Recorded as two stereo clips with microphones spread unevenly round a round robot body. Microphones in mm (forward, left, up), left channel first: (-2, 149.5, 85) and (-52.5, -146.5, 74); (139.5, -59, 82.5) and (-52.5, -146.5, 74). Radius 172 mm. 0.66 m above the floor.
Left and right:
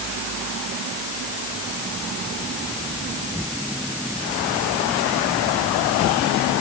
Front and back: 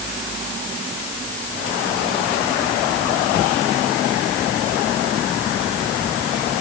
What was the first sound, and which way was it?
Only background noise.